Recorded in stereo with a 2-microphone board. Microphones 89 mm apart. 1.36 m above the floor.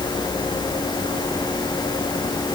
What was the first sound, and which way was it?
Only background noise.